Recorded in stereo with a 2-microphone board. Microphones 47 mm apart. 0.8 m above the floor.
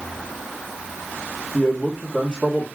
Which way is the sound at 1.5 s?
15° left (ahead or behind).